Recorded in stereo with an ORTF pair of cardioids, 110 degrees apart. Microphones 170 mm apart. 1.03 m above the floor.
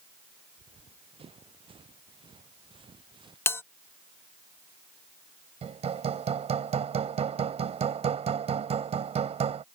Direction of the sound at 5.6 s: 40° right.